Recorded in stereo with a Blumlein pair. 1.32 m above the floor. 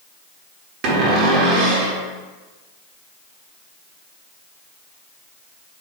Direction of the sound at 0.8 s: 35° right.